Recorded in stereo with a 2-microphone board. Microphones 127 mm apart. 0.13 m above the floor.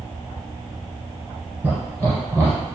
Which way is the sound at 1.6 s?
15° right (ahead or behind).